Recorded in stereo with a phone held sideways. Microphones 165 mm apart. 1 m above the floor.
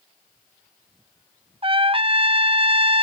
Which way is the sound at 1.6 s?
35° right (ahead or behind).